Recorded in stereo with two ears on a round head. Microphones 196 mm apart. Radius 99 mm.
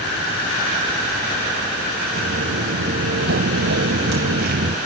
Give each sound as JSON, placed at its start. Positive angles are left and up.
{"t": 2.1, "sound": "footsteps", "side_deg": -50, "distance_m": 2.0}